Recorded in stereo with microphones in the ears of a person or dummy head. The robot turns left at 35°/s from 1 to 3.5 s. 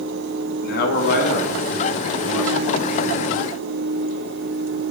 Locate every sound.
0.6 s a man speaking: 65° left, 1.4 m; by 3.0 s 5° right, 1.4 m